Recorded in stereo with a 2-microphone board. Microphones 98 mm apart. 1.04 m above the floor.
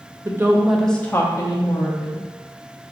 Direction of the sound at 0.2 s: 30° right (ahead or behind).